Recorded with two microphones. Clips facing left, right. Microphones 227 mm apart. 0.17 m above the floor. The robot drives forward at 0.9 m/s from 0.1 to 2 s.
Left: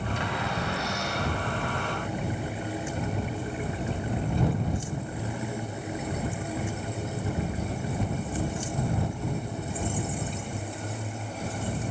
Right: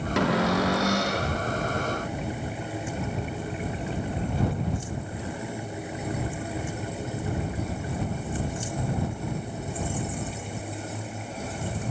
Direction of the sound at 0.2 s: 80° right.